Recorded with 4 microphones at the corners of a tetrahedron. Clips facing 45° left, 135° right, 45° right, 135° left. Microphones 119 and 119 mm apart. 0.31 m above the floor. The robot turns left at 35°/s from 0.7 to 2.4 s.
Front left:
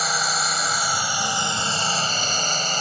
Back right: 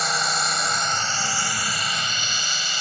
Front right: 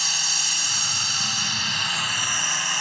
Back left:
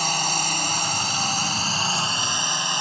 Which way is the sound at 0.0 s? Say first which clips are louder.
Even, back left 10 dB; 130° left.